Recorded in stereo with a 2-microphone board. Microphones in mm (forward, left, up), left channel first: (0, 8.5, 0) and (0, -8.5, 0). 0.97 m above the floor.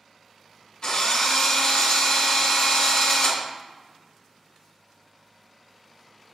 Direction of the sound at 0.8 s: 50° left (ahead or behind).